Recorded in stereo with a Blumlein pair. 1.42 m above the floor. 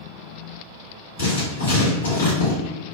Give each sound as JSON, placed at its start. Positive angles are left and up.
{"t": 1.2, "sound": "writing", "azimuth_deg": 65, "distance_m": 1.9}